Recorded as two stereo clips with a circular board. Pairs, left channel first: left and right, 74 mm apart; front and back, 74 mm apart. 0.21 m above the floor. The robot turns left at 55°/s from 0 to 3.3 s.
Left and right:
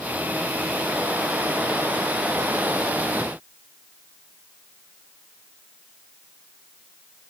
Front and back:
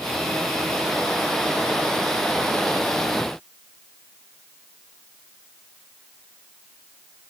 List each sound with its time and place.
Only background noise.